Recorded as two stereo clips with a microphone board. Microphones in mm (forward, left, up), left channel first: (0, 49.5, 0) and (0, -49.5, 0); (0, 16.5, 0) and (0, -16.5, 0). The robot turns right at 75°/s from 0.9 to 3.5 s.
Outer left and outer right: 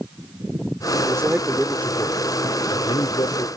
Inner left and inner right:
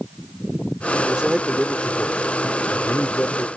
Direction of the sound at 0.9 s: 45° right.